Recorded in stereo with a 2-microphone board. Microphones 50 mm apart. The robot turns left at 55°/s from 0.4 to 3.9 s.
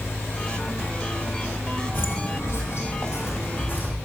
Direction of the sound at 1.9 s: 45° left (ahead or behind).